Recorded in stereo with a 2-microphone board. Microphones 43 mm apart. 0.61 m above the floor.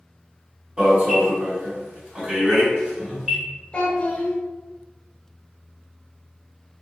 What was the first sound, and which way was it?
An alarm, 20° right (ahead or behind).